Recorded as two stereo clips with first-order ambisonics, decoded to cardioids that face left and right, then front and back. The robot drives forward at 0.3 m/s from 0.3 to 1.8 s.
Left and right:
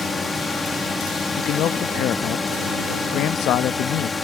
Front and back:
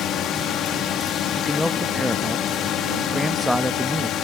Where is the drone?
15° left; by 4.2 s 20° left.